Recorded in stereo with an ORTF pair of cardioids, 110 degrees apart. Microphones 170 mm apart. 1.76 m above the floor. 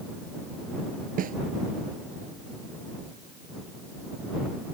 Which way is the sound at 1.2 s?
55° right.